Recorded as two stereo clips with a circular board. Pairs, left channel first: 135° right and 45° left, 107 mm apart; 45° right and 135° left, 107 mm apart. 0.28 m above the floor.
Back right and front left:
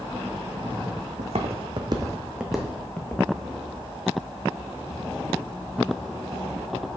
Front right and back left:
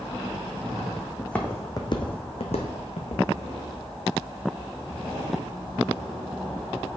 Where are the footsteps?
40° left, 1.1 m; by 3.2 s 65° right, 1.5 m.